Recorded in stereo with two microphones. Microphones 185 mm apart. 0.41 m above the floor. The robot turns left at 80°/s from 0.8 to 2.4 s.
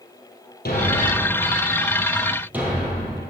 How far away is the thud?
About 3 m.